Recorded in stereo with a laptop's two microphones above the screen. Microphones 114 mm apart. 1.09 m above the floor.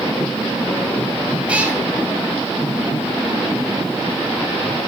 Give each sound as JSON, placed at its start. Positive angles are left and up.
{"t": 1.5, "sound": "a cat meowing", "side_deg": -10, "distance_m": 1.7}